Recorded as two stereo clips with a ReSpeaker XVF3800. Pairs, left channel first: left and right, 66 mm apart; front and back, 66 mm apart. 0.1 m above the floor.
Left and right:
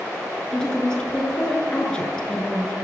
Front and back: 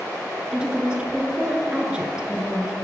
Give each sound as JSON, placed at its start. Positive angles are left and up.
{"t": 0.5, "sound": "a woman speaking", "azimuth_deg": 140, "distance_m": 1.1}